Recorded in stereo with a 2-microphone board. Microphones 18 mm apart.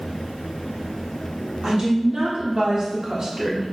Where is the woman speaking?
65° right (ahead or behind), 1.4 m; by 3.7 s 20° right (ahead or behind), 0.5 m.